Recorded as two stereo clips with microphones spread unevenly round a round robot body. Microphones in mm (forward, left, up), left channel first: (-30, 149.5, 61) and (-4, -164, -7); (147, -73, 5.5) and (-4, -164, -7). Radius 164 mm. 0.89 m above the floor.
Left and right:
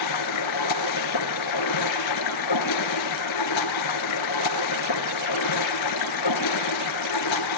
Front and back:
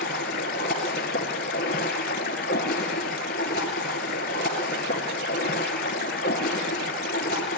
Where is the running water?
80° left, 2.5 m.